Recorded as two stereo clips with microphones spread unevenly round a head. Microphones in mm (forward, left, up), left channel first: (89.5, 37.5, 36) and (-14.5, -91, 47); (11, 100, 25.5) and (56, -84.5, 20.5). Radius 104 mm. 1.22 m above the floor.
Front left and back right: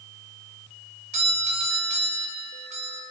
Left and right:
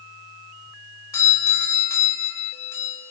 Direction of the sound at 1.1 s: Straight behind.